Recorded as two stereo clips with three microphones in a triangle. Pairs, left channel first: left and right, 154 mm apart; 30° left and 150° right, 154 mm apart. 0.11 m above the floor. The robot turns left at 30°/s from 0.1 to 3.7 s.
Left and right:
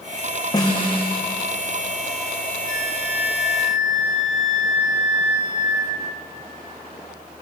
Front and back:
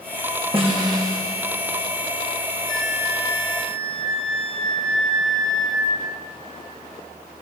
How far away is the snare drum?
About 6 m.